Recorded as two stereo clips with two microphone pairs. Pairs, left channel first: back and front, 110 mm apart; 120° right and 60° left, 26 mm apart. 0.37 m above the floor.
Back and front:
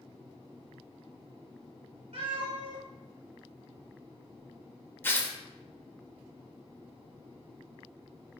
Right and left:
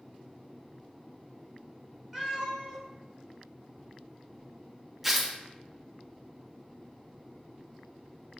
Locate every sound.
2.1 s a cat meowing: 15° right, 1.7 m
5.0 s tearing paper: 130° left, 0.5 m